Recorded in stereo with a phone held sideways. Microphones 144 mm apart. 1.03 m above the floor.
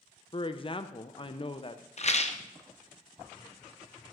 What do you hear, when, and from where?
0.3 s a man speaking: 35° left (ahead or behind), 0.5 m
2.0 s a rattle: 50° left (ahead or behind), 0.6 m